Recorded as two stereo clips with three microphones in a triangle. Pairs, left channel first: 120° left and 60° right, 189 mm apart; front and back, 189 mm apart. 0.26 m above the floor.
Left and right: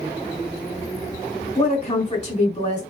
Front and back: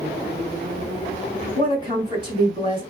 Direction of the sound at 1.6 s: 130° left.